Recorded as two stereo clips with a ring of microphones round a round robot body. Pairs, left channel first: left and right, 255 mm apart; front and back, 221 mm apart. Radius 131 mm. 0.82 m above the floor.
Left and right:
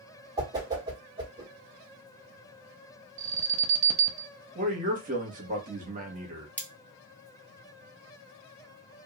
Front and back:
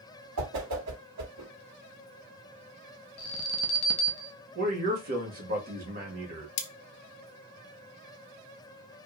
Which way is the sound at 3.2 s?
25° right.